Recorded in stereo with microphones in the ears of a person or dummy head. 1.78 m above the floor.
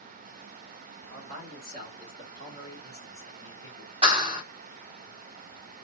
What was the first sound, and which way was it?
A man speaking, 55° right (ahead or behind).